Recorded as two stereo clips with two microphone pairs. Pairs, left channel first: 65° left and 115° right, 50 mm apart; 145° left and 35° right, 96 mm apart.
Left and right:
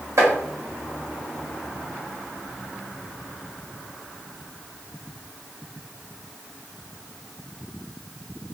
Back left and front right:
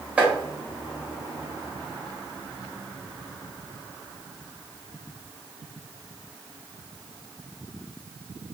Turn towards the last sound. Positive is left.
turn(degrees=-110)